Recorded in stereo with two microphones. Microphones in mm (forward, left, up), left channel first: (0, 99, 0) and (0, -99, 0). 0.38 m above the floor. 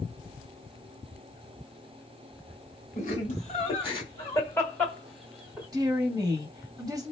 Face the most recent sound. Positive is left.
turn(degrees=-20)  # may be behind; listen again after turning